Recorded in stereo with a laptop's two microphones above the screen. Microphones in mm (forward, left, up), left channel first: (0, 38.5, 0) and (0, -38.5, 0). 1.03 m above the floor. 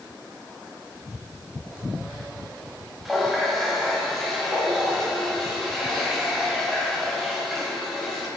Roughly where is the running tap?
Centre.